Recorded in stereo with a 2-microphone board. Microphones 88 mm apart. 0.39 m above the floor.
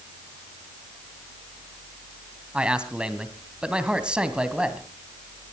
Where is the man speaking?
10° right (ahead or behind), 2 m.